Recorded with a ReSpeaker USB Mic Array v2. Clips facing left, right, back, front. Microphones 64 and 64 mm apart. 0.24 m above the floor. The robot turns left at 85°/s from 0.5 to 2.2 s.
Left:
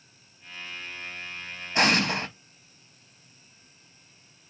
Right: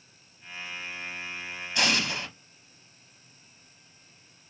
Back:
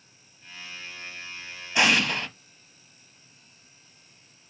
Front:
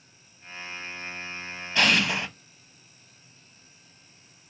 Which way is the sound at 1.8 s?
110° left.